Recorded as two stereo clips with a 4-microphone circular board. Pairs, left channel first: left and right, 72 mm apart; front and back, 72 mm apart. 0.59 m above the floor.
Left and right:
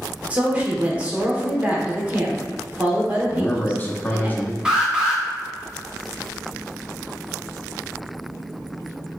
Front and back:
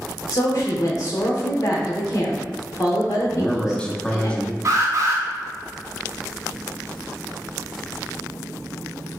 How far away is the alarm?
About 0.9 m.